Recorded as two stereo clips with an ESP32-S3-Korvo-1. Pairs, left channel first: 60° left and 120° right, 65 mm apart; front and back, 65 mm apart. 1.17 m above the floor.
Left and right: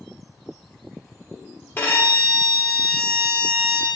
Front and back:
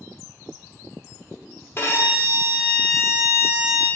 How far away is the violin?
About 0.8 m.